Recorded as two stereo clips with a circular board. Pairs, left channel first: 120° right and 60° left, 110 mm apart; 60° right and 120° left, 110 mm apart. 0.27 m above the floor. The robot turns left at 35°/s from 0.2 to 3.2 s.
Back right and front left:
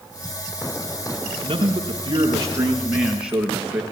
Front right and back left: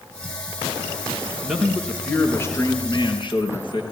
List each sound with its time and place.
1.4 s a man speaking: 40° left, 5 m; by 3.8 s 20° right, 5 m